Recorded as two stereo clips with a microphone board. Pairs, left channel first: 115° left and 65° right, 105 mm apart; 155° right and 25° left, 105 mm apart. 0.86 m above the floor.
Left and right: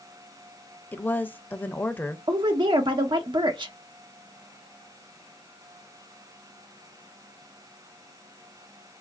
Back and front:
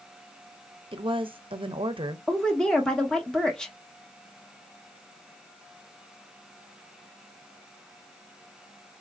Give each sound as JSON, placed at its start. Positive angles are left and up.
{"t": 0.9, "sound": "a woman speaking", "azimuth_deg": 40, "distance_m": 0.5}
{"t": 2.3, "sound": "a woman speaking", "azimuth_deg": -80, "distance_m": 0.8}